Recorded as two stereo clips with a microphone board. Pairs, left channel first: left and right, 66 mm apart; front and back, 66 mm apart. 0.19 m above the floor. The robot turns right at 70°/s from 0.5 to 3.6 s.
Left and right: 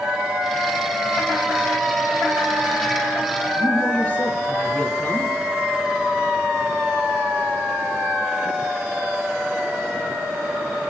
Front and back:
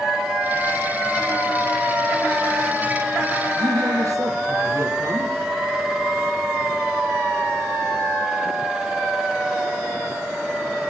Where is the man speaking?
155° left, 4 m.